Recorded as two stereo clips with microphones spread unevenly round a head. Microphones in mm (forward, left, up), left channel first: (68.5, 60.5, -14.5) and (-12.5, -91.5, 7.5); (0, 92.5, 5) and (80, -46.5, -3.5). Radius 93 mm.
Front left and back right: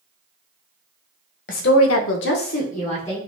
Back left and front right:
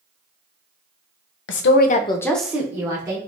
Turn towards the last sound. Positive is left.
turn(degrees=5)